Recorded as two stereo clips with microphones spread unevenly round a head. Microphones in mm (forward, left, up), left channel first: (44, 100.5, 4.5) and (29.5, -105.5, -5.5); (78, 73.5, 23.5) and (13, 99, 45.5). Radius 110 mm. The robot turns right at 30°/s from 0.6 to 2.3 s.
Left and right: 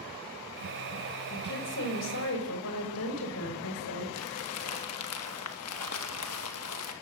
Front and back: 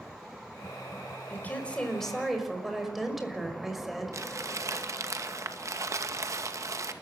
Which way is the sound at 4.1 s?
115° left.